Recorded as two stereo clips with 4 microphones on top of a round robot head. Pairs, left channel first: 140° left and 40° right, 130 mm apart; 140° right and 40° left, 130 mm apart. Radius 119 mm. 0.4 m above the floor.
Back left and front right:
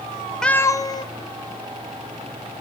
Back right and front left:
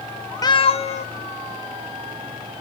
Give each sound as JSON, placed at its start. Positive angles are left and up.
{"t": 0.4, "sound": "a cat meowing", "azimuth_deg": -140, "distance_m": 0.5}